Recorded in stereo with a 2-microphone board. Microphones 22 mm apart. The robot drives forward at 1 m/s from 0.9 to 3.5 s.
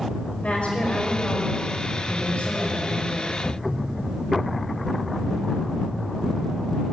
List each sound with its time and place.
0.4 s a woman speaking: 80° left, 5 m; by 3.4 s 65° left (ahead or behind), 5.5 m